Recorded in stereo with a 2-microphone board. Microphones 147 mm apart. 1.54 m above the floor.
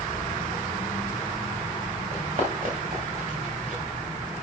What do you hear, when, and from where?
2.1 s running footsteps: 40° right (ahead or behind), 4 m; by 3.8 s 55° right (ahead or behind), 6.5 m